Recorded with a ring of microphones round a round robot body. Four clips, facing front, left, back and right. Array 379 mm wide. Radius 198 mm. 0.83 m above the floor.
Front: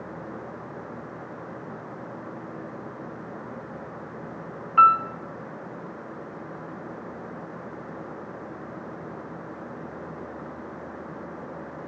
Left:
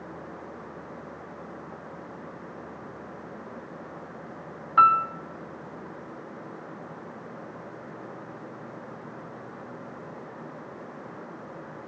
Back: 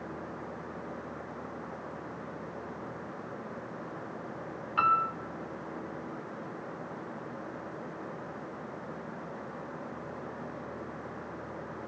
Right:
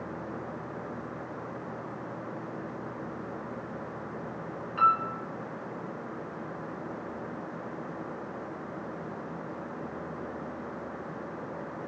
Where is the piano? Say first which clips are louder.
Left 6 dB, front 9 dB; 60° left, 1.7 m.